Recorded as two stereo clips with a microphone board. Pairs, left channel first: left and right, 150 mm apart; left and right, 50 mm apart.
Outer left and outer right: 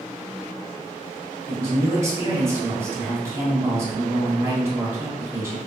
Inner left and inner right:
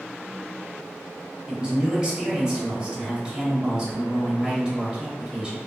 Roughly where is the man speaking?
Right.